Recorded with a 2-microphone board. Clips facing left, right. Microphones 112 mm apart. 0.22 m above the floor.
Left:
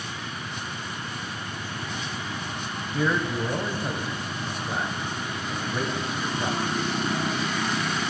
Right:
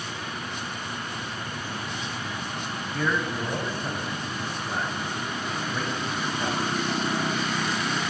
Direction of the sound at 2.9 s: 10° left (ahead or behind).